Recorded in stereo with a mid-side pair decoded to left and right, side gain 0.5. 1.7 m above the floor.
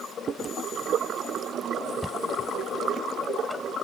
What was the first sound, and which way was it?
Chewing, 45° right.